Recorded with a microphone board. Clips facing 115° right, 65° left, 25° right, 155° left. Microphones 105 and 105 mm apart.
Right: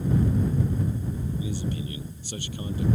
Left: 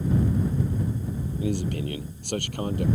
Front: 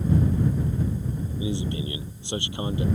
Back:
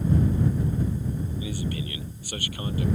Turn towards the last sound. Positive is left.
turn(degrees=45)